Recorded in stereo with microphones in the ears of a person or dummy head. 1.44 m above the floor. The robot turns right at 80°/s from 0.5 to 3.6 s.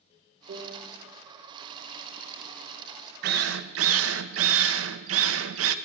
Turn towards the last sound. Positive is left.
turn(degrees=-85)